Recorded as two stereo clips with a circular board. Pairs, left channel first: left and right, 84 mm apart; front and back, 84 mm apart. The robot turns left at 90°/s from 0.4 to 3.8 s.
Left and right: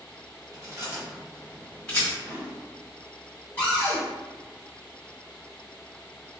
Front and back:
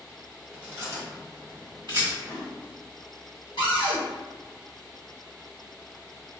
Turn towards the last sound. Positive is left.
turn(degrees=0)